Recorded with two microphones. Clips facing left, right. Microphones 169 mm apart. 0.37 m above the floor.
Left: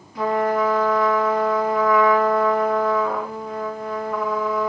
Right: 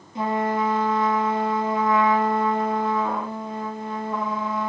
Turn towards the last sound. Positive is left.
turn(degrees=-25)  # may be behind; listen again after turning